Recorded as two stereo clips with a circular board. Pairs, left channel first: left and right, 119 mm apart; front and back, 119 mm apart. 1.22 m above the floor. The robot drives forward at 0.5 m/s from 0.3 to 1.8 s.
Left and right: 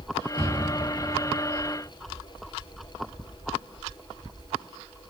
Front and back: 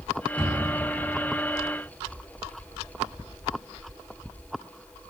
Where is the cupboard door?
75° left, 0.7 m; by 0.7 s 95° left, 0.7 m.